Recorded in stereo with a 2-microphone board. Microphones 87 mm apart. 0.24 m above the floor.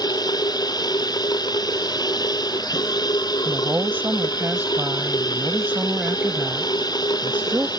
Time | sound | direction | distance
0.0 | running water | 50° left (ahead or behind) | ?
3.5 | a woman speaking | 20° right (ahead or behind) | ?